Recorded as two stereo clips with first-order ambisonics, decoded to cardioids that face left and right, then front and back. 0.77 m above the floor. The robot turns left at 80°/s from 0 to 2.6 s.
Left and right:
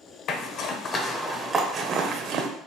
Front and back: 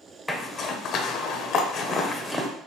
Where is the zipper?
80° left, 0.6 m; by 2.5 s 95° right, 0.6 m.